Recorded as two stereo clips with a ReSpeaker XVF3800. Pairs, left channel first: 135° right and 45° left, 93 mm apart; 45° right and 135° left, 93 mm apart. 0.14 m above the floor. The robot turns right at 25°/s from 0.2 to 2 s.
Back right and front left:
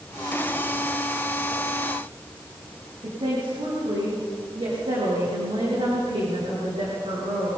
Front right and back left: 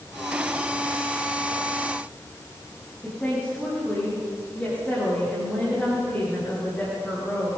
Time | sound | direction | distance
3.0 | a woman speaking | 30° left | 9.5 m